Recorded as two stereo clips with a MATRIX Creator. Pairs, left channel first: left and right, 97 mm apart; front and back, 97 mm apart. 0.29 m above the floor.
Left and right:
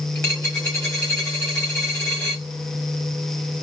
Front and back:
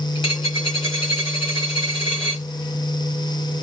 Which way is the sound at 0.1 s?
25° left.